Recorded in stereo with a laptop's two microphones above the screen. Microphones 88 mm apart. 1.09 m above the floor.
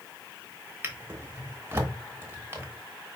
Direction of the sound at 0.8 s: 25° right (ahead or behind).